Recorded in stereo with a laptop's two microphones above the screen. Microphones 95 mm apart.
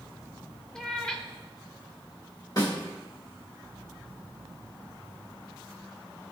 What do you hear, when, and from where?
0.8 s a cat meowing: 10° left (ahead or behind), 0.7 m
2.6 s a snare drum: 40° left (ahead or behind), 1.7 m